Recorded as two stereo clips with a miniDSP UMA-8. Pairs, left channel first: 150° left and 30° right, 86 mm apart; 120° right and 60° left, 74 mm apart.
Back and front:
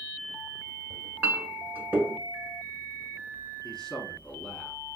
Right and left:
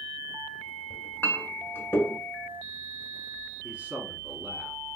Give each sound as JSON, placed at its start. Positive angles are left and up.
{"t": 0.9, "sound": "a clink", "azimuth_deg": -80, "distance_m": 0.9}
{"t": 3.6, "sound": "a man speaking", "azimuth_deg": 85, "distance_m": 1.0}